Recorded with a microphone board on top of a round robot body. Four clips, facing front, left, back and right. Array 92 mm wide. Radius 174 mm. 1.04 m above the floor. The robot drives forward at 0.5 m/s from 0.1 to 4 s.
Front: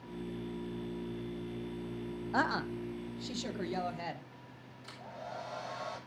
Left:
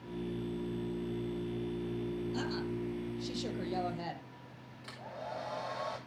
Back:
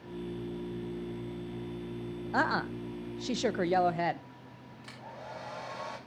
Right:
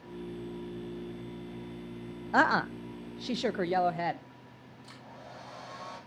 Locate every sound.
2.3 s a woman speaking: 90° right, 0.6 m; by 4.3 s 145° right, 1.1 m
4.8 s a hair dryer: 140° left, 6 m